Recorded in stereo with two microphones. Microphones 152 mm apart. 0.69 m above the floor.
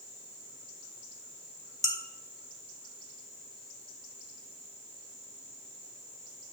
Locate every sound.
1.8 s dishes clattering: 25° right (ahead or behind), 2 m